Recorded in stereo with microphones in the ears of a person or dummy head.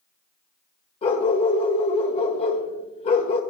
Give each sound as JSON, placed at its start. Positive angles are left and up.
{"t": 1.0, "sound": "a dog barking", "side_deg": 35, "distance_m": 1.7}